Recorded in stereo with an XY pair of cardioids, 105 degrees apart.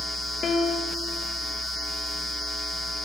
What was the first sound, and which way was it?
A piano, 50° left.